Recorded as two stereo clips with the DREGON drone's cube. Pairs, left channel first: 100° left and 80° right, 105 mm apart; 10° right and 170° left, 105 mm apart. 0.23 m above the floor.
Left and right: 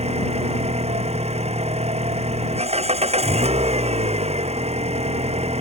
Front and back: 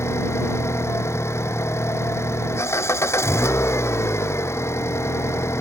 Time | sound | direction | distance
0.0 | an engine running | 75° right | ?